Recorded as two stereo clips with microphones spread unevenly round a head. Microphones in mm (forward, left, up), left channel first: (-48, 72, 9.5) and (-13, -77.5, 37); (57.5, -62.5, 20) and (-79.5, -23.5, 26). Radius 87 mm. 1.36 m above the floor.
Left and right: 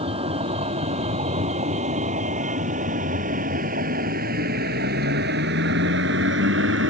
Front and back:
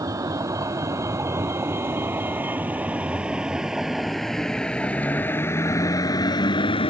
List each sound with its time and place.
0.0 s a vehicle: 130° right; by 6.9 s 65° right